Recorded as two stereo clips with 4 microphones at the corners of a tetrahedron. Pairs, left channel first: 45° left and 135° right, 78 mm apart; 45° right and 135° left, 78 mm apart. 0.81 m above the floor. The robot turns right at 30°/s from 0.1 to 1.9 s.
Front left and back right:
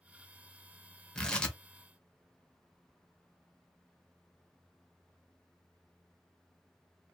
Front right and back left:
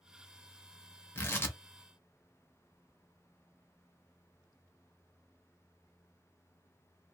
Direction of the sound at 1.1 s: 30° right.